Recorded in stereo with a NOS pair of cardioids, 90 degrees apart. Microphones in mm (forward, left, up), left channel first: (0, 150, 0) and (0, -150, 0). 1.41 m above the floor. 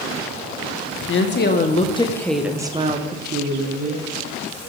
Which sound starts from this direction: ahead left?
A woman speaking, at 1.1 s.